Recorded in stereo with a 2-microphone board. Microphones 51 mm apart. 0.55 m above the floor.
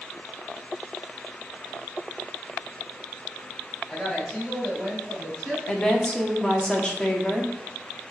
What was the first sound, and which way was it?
A woman speaking, 5° left (ahead or behind).